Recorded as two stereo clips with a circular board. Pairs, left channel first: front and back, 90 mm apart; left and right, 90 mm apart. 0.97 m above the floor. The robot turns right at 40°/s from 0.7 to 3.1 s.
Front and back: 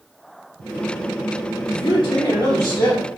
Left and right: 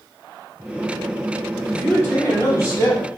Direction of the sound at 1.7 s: 25° left.